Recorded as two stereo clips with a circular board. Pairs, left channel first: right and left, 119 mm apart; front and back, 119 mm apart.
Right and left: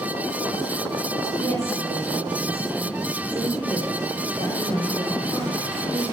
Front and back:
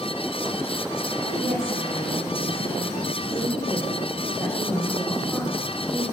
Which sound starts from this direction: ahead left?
A woman speaking, at 1.2 s.